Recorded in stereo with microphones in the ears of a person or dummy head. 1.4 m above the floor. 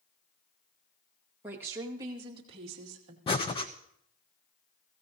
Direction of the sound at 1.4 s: 10° right (ahead or behind).